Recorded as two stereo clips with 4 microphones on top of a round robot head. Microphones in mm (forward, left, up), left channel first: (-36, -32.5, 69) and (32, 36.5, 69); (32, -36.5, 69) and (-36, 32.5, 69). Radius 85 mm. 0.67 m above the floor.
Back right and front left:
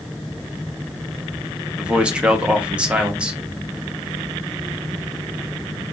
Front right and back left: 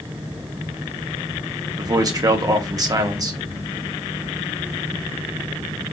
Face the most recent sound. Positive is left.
turn(degrees=120)